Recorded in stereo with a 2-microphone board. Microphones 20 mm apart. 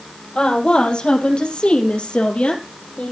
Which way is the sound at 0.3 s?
50° left (ahead or behind).